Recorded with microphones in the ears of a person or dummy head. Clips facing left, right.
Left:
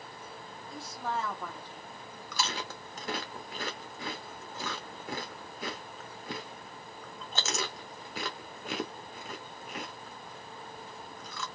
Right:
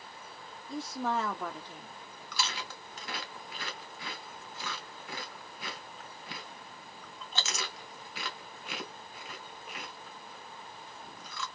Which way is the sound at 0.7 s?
60° right (ahead or behind).